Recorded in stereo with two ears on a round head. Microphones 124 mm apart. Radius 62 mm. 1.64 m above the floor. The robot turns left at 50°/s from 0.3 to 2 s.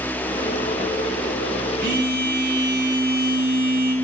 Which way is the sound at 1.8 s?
80° right.